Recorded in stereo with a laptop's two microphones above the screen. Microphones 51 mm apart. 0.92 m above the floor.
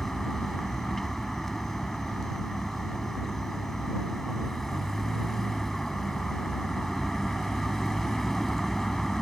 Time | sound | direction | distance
0.0 | a vehicle | 5° left (ahead or behind) | ?